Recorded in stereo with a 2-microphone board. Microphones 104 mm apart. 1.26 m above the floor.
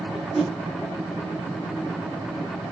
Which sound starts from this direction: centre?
A whoosh, at 0.3 s.